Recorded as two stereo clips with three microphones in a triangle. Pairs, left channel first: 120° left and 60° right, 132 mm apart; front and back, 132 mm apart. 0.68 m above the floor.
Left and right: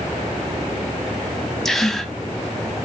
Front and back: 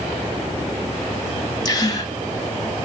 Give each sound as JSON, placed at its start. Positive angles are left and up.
{"t": 1.6, "sound": "a gasp", "azimuth_deg": 35, "distance_m": 0.6}